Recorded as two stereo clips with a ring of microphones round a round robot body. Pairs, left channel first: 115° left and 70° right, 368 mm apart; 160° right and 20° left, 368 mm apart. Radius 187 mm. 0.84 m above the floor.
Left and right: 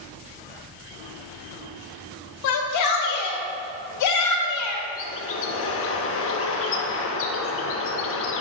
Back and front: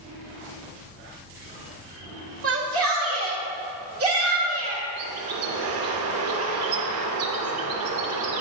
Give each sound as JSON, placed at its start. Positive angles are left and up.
{"t": 2.4, "sound": "a shout", "azimuth_deg": 75, "distance_m": 1.7}
{"t": 5.0, "sound": "a bird", "azimuth_deg": 65, "distance_m": 0.6}